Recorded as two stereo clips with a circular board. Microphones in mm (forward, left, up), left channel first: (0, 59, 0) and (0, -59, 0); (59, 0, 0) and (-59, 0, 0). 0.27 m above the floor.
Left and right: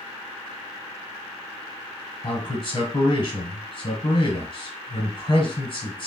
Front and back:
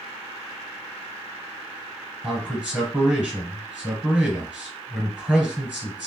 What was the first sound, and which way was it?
A man speaking, 105° left.